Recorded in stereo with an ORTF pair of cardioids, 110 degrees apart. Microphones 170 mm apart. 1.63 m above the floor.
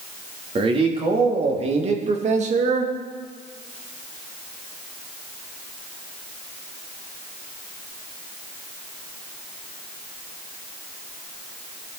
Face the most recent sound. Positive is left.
turn(degrees=-45)